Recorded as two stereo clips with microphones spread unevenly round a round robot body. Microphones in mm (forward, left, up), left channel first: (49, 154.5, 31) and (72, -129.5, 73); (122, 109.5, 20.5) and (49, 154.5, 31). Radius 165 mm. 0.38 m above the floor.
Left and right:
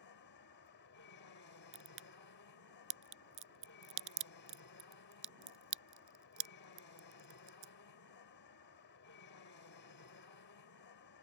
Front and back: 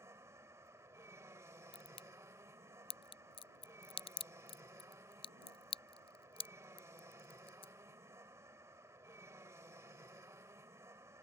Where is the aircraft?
105° left.